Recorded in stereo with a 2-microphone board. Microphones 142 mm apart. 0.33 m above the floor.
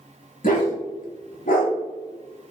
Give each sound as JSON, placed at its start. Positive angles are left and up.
{"t": 0.4, "sound": "a dog barking", "side_deg": 70, "distance_m": 0.8}